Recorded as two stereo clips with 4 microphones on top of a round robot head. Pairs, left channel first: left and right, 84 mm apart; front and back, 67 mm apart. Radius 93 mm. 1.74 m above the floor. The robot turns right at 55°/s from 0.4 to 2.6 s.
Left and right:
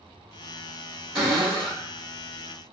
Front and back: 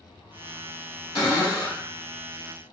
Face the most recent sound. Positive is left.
turn(degrees=70)